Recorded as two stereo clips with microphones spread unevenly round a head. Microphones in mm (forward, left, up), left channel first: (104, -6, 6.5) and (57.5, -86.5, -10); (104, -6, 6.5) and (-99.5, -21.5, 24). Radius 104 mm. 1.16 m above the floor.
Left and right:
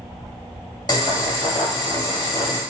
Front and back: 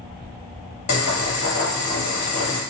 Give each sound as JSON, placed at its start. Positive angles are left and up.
{"t": 0.9, "sound": "boiling", "azimuth_deg": 15, "distance_m": 1.4}